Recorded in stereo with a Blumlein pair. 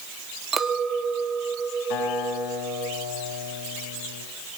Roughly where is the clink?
Ahead.